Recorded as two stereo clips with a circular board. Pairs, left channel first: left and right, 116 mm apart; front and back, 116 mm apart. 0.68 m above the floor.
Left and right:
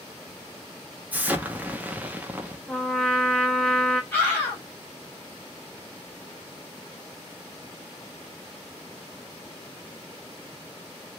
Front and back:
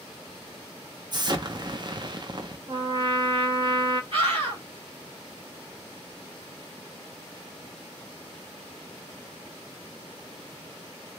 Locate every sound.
1.1 s an explosion: 160° right, 0.6 m
2.7 s a trumpet: 175° left, 0.7 m
4.1 s a scream: 155° left, 2 m